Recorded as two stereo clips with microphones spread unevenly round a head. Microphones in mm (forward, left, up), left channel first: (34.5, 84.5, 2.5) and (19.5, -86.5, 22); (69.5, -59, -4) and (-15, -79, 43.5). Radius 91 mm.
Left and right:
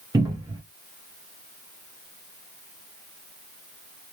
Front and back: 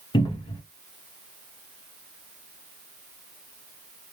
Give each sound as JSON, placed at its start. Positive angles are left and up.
{"t": 0.1, "sound": "a cupboard door", "azimuth_deg": -35, "distance_m": 0.8}